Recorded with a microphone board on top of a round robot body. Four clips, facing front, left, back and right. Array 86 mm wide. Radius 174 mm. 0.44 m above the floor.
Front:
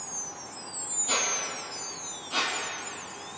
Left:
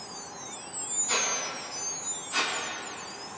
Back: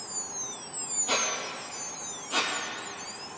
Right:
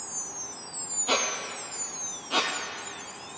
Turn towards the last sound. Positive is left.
turn(degrees=-100)